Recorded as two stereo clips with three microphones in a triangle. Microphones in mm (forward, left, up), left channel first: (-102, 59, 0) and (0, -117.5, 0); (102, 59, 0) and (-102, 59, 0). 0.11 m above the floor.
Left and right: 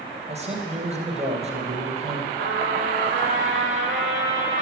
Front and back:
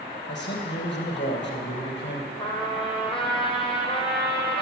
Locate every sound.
0.3 s a man speaking: 10° right, 2.5 m
2.4 s a trumpet: 60° right, 2 m